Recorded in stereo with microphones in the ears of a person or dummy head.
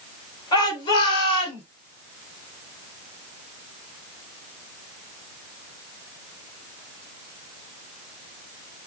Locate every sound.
0.5 s a shout: 25° left (ahead or behind), 4.5 m; by 1.6 s 35° left (ahead or behind), 4 m